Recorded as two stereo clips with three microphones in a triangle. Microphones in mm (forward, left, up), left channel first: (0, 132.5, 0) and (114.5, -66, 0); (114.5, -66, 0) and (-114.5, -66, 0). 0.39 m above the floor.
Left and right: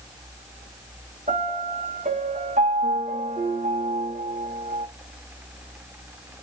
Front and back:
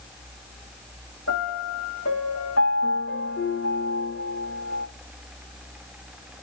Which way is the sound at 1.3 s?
5° right.